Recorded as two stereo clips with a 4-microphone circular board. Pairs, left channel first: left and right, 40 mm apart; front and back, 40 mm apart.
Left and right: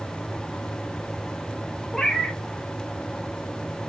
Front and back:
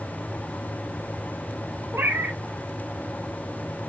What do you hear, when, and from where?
1.9 s a cat meowing: 170° left, 0.9 m